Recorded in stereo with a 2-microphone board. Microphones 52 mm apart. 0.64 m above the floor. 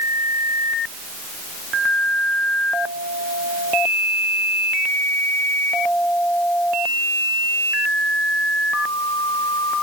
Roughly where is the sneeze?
I don't hear a sneeze.